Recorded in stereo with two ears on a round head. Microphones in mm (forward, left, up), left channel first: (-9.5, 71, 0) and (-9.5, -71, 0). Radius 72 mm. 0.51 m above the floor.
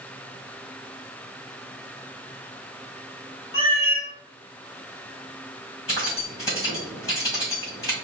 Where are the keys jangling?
20° left (ahead or behind), 2.5 m.